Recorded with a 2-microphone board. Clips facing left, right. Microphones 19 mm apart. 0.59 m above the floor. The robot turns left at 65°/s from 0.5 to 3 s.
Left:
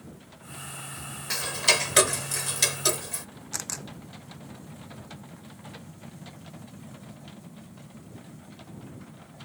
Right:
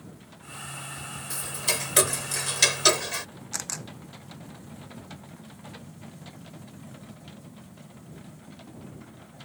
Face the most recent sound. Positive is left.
turn(degrees=-5)  # may be behind; listen again after turning